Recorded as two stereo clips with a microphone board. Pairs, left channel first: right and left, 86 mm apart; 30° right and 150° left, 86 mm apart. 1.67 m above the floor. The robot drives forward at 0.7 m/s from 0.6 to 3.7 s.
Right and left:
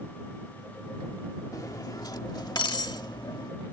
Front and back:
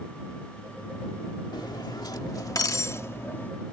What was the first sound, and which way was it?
Cutlery clinking, 50° right.